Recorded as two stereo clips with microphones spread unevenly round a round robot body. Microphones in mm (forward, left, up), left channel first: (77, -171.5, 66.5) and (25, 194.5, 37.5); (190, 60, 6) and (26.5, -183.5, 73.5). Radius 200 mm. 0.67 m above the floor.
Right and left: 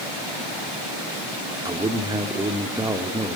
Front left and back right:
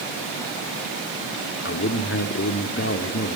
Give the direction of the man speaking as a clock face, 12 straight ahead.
11 o'clock.